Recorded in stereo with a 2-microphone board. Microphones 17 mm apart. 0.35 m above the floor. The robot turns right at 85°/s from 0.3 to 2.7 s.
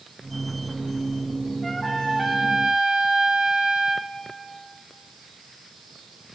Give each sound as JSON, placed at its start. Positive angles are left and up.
{"t": 1.6, "sound": "a trumpet", "azimuth_deg": 160, "distance_m": 2.5}